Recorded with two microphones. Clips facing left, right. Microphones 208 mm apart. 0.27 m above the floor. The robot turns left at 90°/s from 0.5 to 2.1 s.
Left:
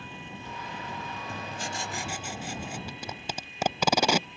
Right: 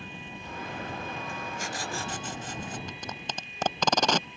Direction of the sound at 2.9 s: 10° left (ahead or behind).